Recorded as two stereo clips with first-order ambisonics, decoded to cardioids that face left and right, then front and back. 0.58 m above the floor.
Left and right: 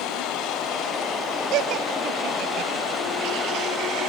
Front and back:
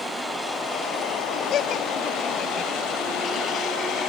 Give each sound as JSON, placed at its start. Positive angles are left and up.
{"t": 1.5, "sound": "laughter", "azimuth_deg": -50}